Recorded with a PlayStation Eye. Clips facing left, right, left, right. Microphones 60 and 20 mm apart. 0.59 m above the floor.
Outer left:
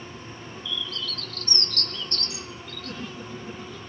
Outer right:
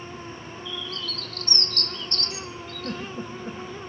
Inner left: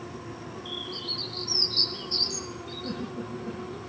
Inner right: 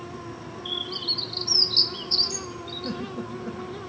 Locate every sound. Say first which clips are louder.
0.7 s a bird: outer left 1 dB, inner right 6 dB; 45° right (ahead or behind), 1.6 m
2.8 s a giggle: outer right 4 dB, inner right 2 dB; 40° right (ahead or behind), 4 m